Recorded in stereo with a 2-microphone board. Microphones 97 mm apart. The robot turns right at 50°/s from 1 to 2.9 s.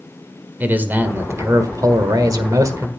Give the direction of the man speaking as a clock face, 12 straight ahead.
5 o'clock.